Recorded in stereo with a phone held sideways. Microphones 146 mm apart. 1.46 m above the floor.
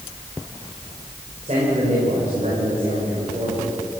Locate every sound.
1.4 s a man speaking: 50° right (ahead or behind), 5.5 m